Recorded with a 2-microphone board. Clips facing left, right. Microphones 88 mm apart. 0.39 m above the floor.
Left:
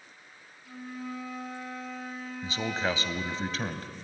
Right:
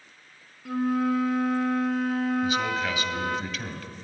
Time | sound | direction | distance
0.7 | a flute | 75° right (ahead or behind) | 1.1 m
2.4 | a man speaking | 30° left (ahead or behind) | 1.9 m